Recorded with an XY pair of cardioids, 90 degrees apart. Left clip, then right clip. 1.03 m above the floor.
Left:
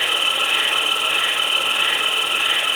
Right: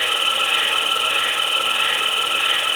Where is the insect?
20° right, 1.9 m.